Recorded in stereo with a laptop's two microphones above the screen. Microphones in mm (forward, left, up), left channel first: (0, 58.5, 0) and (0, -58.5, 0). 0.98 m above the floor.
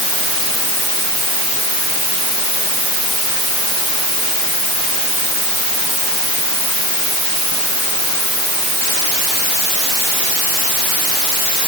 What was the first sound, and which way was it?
Only background noise.